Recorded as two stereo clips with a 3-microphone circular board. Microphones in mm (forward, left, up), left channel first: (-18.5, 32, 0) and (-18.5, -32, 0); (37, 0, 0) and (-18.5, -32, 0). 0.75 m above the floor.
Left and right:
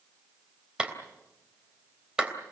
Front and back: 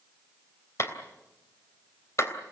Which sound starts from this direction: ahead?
A clap, at 0.8 s.